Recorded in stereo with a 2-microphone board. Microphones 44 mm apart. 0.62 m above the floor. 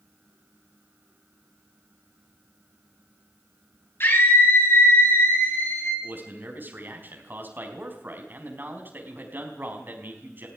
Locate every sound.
4.0 s a scream: 60° left (ahead or behind), 9.5 m; by 5.9 s 65° left (ahead or behind), 10 m
6.0 s a man speaking: 50° right (ahead or behind), 4.5 m